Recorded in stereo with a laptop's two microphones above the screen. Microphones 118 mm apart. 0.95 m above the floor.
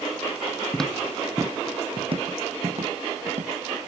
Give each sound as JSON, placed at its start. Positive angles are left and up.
{"t": 0.7, "sound": "footsteps", "side_deg": 10, "distance_m": 0.9}